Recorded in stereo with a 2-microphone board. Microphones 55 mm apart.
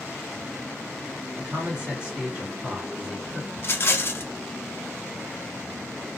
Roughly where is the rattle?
Left.